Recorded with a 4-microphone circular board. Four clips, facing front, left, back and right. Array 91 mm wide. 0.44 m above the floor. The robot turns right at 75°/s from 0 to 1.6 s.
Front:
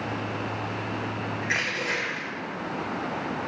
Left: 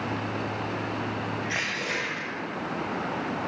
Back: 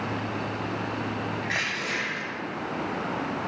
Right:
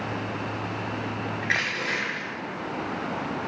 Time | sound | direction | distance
1.4 | crushing | 80° right | 6.5 m